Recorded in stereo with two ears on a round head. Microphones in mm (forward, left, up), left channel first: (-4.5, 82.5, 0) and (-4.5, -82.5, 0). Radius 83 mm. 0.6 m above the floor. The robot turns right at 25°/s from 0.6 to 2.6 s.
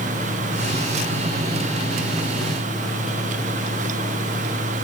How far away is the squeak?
I don't hear a squeak.